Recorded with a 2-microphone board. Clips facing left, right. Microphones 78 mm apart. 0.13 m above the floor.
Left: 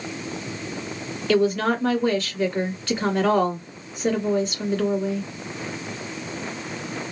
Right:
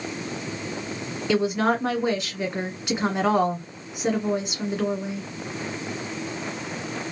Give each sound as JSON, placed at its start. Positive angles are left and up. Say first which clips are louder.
{"t": 1.3, "sound": "a woman speaking", "louder": "left 2 dB", "side_deg": -15, "distance_m": 1.6}